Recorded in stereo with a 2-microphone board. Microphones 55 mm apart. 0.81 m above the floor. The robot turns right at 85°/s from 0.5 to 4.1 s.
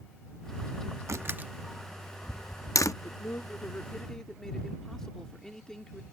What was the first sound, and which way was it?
A door slam, 60° right (ahead or behind).